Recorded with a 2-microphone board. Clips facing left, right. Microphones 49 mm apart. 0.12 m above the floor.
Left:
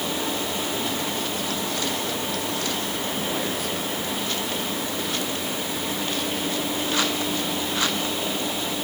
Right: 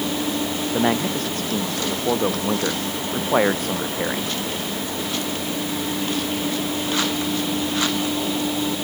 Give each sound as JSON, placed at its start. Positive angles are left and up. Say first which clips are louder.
{"t": 0.7, "sound": "a man speaking", "louder": "right 6 dB", "side_deg": -55}